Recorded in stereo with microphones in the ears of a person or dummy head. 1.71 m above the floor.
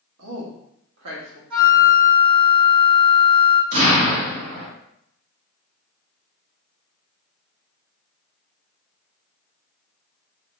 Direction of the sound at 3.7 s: 55° right (ahead or behind).